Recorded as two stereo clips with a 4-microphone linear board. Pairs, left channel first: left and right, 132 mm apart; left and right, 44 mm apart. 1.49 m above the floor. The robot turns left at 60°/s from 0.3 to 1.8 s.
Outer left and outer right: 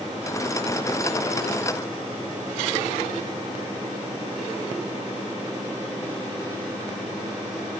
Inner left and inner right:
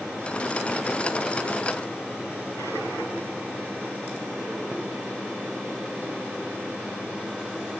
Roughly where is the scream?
I don't hear a scream.